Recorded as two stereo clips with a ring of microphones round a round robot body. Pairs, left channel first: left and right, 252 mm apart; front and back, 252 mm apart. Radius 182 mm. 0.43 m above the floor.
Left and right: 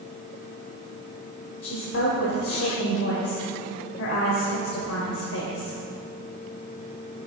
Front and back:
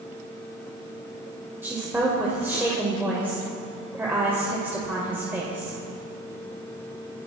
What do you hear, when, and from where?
1.6 s a woman speaking: 100° left, 2 m